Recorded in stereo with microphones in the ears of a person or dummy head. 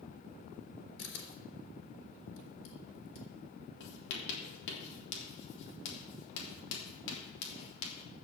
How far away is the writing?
About 3 m.